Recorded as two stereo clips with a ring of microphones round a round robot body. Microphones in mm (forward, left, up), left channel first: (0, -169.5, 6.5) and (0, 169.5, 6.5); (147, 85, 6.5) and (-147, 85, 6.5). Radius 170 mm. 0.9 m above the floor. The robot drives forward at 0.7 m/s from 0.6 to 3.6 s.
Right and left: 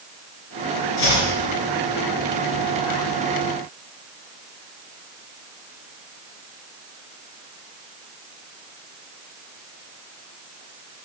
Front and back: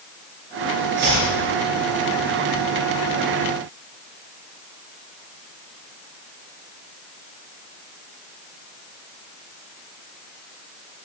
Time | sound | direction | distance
1.0 | chopping | 115° right | 3 m